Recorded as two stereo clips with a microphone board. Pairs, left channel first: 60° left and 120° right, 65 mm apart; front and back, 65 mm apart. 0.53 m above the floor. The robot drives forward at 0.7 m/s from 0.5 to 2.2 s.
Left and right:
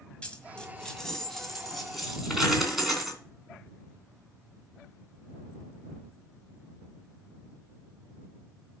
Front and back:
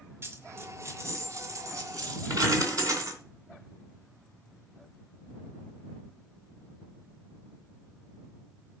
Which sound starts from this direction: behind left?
A dropped coin, at 0.2 s.